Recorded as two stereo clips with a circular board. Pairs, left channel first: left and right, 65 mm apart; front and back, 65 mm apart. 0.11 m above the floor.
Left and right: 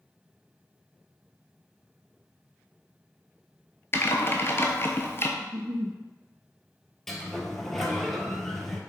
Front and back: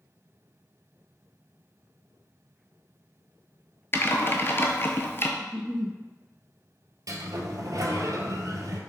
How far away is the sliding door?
About 0.8 m.